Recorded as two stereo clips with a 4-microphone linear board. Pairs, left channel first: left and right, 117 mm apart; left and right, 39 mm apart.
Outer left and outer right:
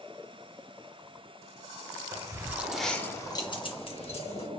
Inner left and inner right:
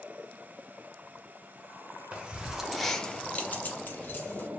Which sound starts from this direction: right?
Keys jangling, at 2.1 s.